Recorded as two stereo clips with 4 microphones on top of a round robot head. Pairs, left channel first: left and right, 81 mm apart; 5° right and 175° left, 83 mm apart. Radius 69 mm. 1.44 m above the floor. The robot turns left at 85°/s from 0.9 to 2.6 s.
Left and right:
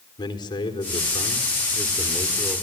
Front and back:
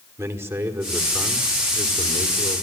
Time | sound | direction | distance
0.2 | a man speaking | 115° left | 4.5 m